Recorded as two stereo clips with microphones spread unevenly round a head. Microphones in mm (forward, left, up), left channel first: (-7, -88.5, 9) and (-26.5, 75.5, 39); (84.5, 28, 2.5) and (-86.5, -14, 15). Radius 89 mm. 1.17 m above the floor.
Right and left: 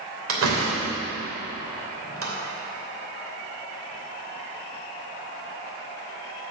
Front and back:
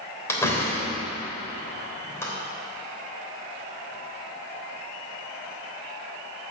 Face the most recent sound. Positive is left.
turn(degrees=90)